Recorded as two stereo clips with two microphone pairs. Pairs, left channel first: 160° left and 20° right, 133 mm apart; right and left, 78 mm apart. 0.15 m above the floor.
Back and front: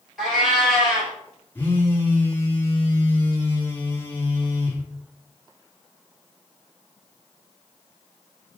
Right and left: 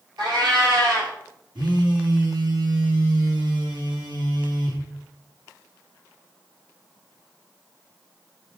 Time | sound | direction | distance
0.2 | a cat meowing | 70° left | 1.8 m
1.6 | a phone buzzing | 85° left | 1.4 m